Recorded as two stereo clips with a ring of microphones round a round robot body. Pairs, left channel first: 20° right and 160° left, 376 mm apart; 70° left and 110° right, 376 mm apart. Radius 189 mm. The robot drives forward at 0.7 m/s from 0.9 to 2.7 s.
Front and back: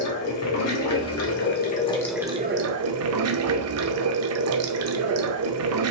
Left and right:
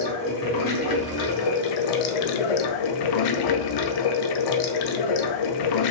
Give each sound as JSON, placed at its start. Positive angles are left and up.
{"t": 0.0, "sound": "running water", "azimuth_deg": 30, "distance_m": 1.3}